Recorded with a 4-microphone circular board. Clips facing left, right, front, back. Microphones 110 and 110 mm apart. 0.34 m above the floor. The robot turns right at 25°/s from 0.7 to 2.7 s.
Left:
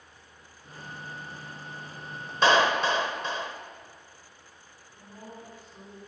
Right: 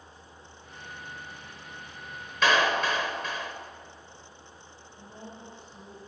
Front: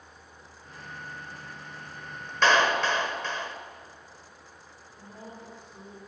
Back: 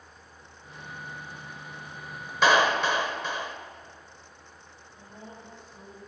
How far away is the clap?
About 0.7 m.